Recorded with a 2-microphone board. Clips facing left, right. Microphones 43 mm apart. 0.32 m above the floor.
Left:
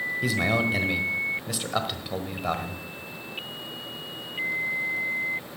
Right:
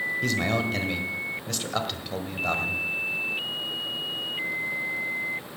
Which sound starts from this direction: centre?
A man speaking, at 0.2 s.